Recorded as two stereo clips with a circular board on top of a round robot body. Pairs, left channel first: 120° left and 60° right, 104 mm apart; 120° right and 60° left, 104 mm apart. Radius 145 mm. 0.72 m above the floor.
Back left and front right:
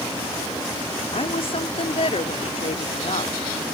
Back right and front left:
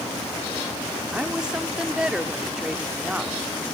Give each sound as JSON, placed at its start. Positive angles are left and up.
{"t": 1.1, "sound": "a woman speaking", "azimuth_deg": 140}